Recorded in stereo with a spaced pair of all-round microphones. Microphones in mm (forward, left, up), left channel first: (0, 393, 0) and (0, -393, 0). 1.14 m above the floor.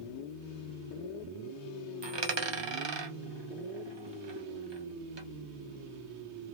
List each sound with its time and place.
2.0 s a dropped coin: 40° right (ahead or behind), 0.5 m